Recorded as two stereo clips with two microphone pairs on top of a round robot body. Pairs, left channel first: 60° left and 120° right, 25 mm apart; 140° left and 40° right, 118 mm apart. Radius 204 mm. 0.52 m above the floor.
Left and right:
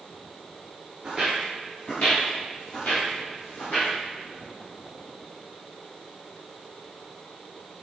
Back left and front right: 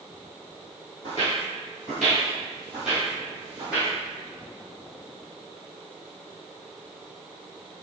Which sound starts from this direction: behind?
Footsteps, at 1.0 s.